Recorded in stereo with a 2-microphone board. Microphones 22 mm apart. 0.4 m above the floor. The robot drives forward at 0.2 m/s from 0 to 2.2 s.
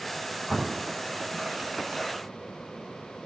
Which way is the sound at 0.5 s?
10° left (ahead or behind).